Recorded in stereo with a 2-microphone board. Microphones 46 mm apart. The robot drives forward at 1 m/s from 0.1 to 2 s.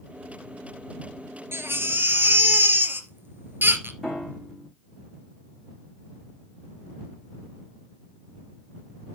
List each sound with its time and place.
1.5 s a baby crying: 65° right (ahead or behind), 1.9 m; by 3.9 s 50° right (ahead or behind), 2 m
4.0 s a piano: 5° right (ahead or behind), 5 m